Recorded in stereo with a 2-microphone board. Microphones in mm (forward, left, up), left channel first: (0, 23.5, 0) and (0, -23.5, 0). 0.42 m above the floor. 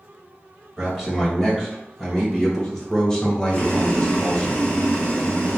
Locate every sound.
0.8 s a man speaking: centre (ahead or behind), 2.0 m; by 4.5 s 25° left (ahead or behind), 1.0 m
3.5 s boiling: 25° left (ahead or behind), 1.1 m